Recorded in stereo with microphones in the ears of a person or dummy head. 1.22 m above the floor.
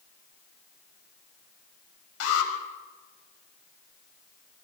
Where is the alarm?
85° left, 4.5 m.